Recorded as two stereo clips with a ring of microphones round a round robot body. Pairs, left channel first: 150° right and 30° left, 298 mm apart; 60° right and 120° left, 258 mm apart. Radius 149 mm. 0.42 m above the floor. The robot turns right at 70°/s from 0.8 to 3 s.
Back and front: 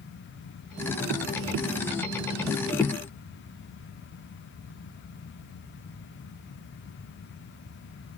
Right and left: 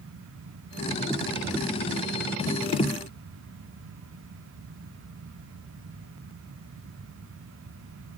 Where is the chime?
I don't hear a chime.